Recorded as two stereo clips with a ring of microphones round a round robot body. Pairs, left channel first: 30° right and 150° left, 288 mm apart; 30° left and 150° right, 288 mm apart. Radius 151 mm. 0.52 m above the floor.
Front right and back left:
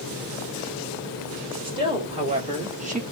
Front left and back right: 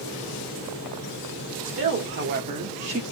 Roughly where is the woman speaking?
Behind right.